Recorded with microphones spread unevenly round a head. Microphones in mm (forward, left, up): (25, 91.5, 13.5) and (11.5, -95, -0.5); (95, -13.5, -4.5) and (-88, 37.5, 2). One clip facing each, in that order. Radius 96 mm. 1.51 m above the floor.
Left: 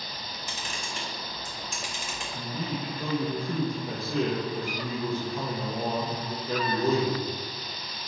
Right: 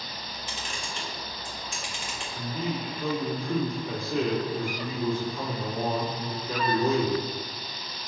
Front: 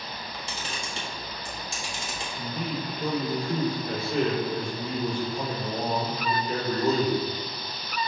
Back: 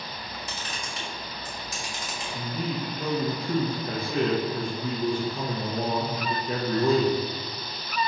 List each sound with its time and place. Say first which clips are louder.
0.1 s a camera shutter: right 1 dB, even; 45° left, 1.3 m
2.3 s a man speaking: right 2 dB, back 1 dB; 125° left, 1.3 m